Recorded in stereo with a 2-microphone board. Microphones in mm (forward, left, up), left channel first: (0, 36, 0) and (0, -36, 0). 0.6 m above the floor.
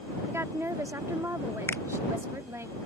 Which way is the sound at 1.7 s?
30° left (ahead or behind).